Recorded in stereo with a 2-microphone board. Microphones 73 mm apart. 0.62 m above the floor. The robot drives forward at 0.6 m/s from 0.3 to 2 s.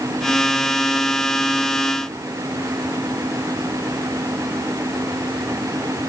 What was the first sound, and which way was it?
Only background noise.